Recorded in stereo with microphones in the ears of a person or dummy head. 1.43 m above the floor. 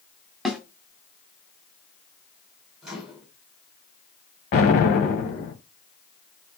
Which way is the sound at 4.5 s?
40° left (ahead or behind).